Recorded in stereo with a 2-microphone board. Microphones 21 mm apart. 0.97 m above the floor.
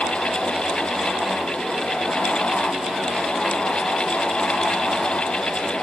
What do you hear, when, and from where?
Only background noise.